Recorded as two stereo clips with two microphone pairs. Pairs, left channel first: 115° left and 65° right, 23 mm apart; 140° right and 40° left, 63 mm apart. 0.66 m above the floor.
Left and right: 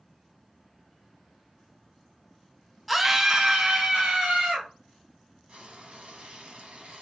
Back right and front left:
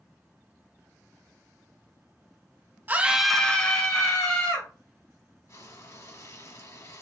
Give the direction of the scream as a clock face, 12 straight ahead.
11 o'clock.